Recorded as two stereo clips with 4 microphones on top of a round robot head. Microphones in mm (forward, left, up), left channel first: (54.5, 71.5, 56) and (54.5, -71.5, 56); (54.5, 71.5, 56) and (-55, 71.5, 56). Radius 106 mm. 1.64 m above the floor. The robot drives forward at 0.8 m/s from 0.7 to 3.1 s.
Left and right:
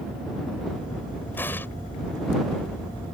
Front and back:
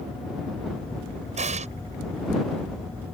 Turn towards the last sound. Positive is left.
turn(degrees=170)